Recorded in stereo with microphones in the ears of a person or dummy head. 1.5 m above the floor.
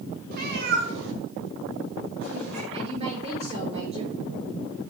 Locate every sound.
0.3 s a cat meowing: 45° right (ahead or behind), 2 m; by 2.6 s 65° right (ahead or behind), 3.5 m
2.7 s a woman speaking: 40° right (ahead or behind), 5 m